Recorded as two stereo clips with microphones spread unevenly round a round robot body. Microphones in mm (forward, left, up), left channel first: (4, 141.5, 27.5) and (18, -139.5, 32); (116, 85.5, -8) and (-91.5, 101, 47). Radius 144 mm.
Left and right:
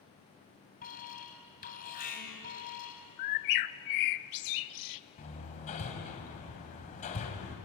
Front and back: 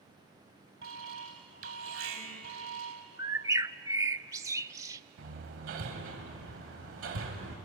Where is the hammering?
160° left, 3 m.